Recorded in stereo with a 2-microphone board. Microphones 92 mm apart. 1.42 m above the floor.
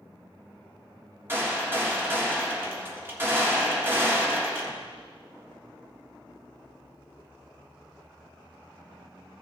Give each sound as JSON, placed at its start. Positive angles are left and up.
{"t": 1.3, "sound": "a gunshot", "side_deg": -25, "distance_m": 1.7}